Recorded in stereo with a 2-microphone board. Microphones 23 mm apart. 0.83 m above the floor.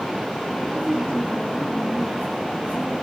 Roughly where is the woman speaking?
Left.